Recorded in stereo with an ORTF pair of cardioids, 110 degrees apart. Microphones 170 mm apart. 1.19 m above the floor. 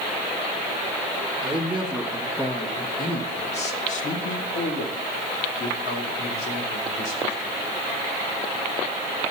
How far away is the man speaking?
About 1.6 m.